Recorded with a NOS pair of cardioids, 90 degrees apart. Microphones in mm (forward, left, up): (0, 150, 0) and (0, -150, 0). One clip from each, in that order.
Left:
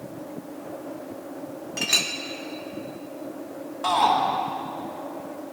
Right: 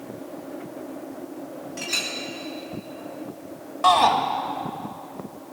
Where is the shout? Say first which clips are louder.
Right 4 dB; 30° right, 1.9 m.